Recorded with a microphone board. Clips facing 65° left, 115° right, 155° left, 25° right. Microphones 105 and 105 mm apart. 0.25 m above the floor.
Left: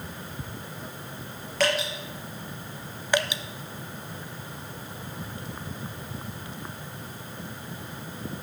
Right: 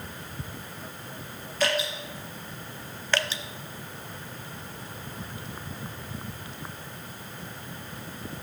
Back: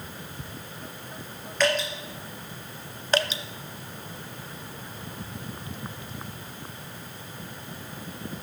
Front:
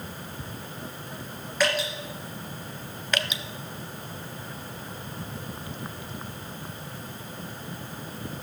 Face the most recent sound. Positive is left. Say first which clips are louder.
# left 3 dB, back 5 dB
turn(degrees=130)